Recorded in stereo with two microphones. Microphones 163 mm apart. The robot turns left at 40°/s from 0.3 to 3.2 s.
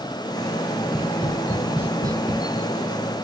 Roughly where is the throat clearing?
I don't hear throat clearing.